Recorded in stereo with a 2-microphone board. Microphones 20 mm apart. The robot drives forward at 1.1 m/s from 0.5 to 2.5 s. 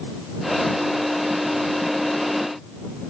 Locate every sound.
Only background noise.